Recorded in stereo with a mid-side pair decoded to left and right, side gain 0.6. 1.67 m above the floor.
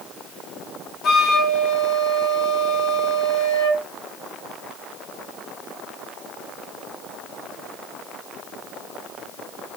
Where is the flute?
45° left, 1.6 m.